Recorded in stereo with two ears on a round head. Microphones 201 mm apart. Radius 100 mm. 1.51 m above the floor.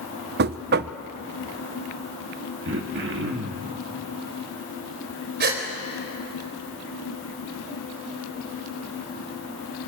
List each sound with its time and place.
0.4 s knocking: 45° right (ahead or behind), 0.6 m
2.6 s throat clearing: 55° right (ahead or behind), 1.8 m
5.4 s a gasp: 45° right (ahead or behind), 3.5 m